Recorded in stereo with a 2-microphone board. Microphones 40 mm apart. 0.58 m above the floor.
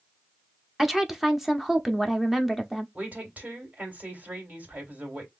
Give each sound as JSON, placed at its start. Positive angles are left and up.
{"t": 0.8, "sound": "a woman speaking", "side_deg": -10, "distance_m": 0.8}
{"t": 3.0, "sound": "a woman speaking", "side_deg": -45, "distance_m": 2.0}